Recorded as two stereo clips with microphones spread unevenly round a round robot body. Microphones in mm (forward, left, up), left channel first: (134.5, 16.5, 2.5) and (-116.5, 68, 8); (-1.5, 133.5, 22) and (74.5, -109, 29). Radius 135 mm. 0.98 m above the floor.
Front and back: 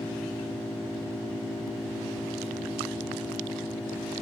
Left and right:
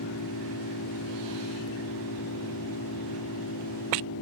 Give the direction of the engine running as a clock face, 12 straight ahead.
9 o'clock.